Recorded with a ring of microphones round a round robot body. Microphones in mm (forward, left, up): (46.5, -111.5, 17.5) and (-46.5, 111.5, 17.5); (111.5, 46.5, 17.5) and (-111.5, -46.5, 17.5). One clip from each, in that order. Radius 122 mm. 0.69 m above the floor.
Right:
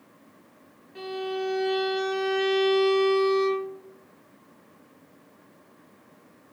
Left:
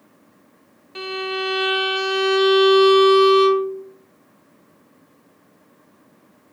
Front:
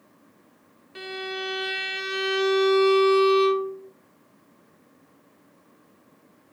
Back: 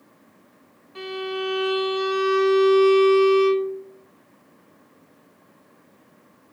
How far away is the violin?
About 0.8 m.